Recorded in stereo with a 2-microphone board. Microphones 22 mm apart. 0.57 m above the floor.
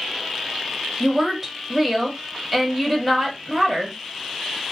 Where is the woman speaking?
15° right (ahead or behind), 1.2 m.